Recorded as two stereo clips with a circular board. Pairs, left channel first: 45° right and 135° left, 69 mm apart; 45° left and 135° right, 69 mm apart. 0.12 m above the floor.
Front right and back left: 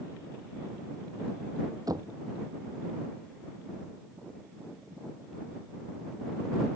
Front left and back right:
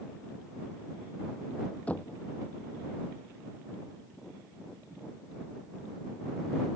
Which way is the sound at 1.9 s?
115° left.